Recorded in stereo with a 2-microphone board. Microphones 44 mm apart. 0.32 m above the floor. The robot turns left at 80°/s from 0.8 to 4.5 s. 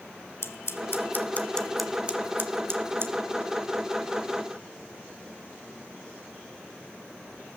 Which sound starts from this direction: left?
Scissors, at 0.4 s.